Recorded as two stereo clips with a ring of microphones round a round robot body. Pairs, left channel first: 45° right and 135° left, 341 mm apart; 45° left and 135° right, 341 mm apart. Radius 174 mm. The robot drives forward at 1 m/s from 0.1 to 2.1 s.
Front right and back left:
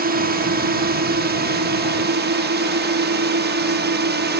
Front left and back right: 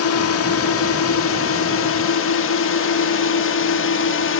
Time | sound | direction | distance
0.0 | a drone | 80° left | ?